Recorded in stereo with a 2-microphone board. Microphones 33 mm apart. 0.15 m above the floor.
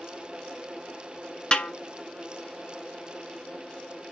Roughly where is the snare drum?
Left.